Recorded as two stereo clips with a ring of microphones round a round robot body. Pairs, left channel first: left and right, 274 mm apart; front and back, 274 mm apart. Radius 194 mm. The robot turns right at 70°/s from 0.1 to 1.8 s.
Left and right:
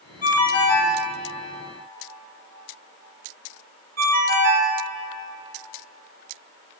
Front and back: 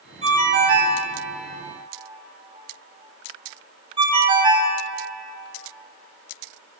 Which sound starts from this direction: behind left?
A ringtone, at 0.2 s.